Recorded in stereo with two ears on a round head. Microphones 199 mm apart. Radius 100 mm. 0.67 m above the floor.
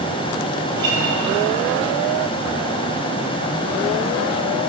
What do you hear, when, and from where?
0.7 s a guitar: 20° right (ahead or behind), 3.5 m